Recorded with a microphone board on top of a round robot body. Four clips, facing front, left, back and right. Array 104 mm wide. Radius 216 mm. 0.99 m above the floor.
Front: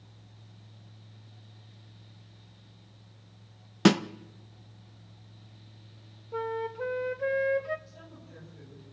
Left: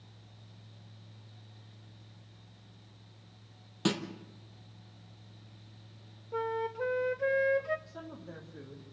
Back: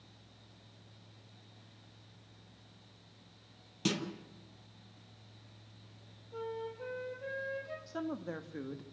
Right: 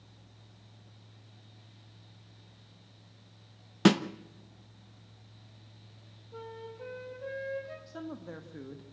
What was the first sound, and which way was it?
A snare drum, 30° right.